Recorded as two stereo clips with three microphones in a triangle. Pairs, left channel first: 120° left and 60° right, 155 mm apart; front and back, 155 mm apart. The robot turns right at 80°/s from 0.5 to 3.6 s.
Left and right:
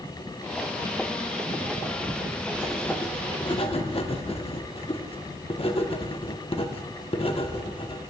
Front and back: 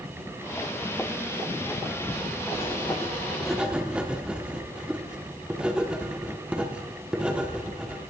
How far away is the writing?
About 0.9 m.